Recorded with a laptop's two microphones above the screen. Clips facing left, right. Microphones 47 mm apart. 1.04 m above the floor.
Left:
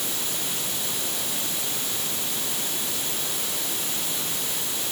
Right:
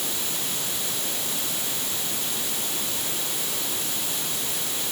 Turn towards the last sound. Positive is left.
No sound to turn to.